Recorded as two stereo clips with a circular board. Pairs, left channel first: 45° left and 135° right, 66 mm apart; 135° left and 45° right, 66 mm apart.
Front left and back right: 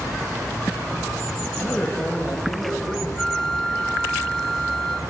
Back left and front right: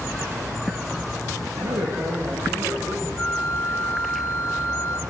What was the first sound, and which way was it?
A man speaking, 35° right.